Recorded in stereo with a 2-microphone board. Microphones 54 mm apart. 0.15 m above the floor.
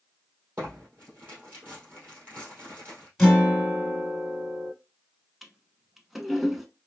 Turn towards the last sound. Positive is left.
turn(degrees=-5)  # may be behind; listen again after turning